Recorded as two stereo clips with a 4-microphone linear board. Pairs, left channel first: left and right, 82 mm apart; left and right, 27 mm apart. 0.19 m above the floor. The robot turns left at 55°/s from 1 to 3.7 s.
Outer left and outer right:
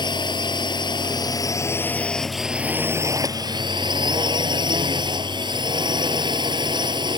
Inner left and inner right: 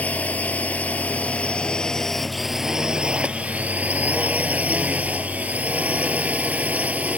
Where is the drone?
75° left; by 7.2 s 75° right.